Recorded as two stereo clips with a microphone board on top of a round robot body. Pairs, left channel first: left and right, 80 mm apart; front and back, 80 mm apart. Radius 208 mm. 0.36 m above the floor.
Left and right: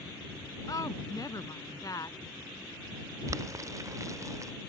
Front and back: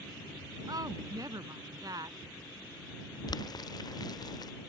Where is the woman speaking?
135° left.